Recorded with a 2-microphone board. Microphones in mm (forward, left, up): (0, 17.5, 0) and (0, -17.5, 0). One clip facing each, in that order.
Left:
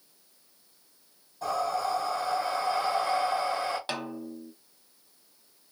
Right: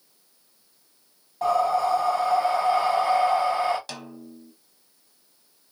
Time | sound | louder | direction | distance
1.4 | breathing | right 7 dB | 65° right (ahead or behind) | 2.5 m
3.9 | a snare drum | left 5 dB | 25° left (ahead or behind) | 0.7 m